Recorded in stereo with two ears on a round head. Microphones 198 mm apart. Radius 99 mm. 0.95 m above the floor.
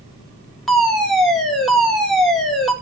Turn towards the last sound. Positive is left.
turn(degrees=0)  # may be behind; listen again after turning